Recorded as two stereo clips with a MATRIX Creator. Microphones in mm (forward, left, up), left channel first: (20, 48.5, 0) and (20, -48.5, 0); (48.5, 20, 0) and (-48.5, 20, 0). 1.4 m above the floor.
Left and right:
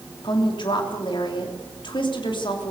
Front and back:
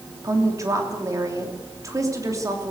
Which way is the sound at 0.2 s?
125° left.